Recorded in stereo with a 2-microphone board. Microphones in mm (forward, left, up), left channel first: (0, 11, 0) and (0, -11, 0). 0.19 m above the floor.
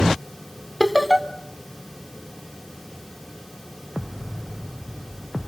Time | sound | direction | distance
0.8 | laughter | centre (ahead or behind) | 1.2 m